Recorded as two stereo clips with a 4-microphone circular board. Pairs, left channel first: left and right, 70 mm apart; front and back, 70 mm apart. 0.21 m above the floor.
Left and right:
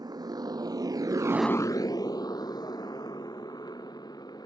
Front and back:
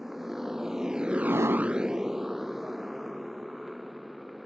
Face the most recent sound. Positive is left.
turn(degrees=90)